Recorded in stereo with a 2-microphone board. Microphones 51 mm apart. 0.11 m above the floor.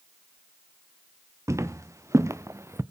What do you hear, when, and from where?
1.5 s footsteps: 80° right, 1.3 m; by 2.8 s 65° right (ahead or behind), 0.6 m